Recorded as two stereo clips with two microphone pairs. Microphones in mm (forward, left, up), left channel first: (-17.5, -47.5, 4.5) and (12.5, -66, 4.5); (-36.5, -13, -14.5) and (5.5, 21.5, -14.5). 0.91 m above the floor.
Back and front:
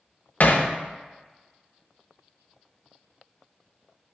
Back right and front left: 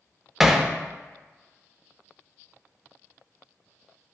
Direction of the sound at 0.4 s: 125° left.